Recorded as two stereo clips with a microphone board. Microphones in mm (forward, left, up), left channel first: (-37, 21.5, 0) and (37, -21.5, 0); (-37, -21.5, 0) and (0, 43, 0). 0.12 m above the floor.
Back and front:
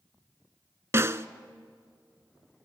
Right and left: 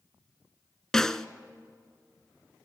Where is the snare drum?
45° right, 0.6 m.